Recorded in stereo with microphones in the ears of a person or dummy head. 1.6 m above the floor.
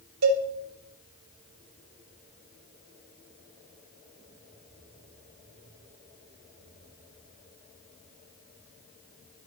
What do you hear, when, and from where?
0.2 s a cowbell: 75° right (ahead or behind), 1.3 m